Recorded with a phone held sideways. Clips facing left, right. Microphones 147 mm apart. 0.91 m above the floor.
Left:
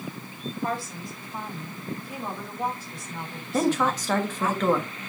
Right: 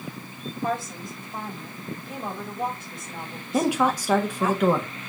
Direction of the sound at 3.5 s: 10° right (ahead or behind).